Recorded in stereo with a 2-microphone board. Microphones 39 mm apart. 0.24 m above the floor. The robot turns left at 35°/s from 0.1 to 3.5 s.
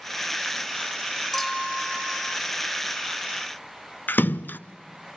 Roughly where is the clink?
Ahead.